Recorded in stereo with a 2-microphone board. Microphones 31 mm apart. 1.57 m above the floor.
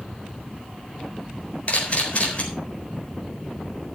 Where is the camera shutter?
40° left (ahead or behind), 4 m.